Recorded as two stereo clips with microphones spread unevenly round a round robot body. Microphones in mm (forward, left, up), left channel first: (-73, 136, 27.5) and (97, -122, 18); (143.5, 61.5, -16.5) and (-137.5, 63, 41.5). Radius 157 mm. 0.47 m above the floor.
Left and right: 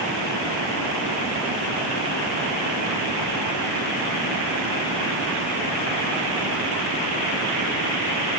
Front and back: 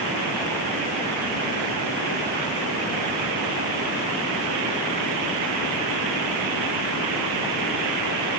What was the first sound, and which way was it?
Only background noise.